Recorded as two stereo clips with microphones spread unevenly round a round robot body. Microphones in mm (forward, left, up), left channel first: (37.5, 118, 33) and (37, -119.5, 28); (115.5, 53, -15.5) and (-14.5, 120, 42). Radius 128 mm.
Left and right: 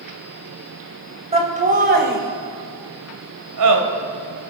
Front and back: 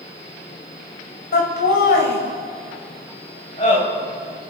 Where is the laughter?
25° right, 3 m; by 3.8 s 100° right, 3 m.